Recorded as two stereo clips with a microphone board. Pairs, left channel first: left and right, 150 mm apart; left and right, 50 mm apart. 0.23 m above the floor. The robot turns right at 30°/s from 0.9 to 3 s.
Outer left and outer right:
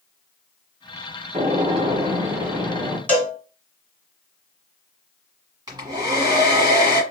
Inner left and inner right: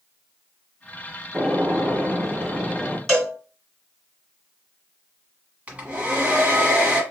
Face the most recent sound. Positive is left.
turn(degrees=-25)  # may be behind; listen again after turning